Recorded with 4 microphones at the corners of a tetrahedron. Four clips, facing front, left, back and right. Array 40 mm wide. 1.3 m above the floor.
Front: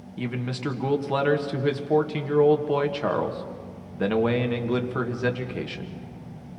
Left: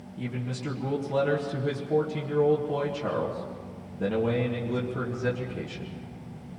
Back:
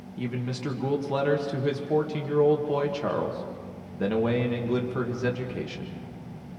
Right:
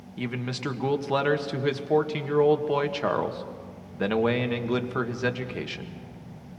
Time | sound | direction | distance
0.2 | a man speaking | 60° right | 1.7 m